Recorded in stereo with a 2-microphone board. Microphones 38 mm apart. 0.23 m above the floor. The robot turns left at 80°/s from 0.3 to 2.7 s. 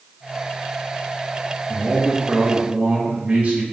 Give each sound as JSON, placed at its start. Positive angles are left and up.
{"t": 1.7, "sound": "a man speaking", "azimuth_deg": 45, "distance_m": 1.9}